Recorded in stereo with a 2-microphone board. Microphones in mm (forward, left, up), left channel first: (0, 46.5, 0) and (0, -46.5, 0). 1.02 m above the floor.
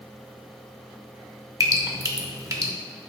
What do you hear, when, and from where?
1.6 s dripping: 35° right (ahead or behind), 0.9 m